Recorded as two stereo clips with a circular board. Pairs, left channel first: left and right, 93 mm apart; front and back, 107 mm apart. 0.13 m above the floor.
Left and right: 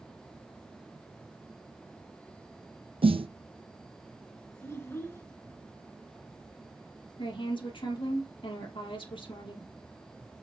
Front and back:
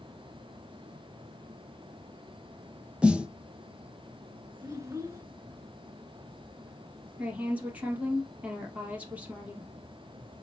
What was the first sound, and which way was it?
A snare drum, 100° right.